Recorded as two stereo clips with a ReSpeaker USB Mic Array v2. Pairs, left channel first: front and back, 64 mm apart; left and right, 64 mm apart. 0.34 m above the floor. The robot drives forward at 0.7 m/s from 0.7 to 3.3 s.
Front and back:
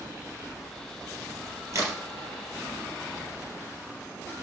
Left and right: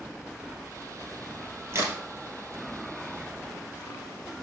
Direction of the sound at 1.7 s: 140° right.